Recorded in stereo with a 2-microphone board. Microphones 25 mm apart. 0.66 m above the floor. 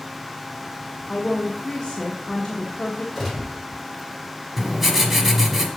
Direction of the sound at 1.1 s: 25° left (ahead or behind).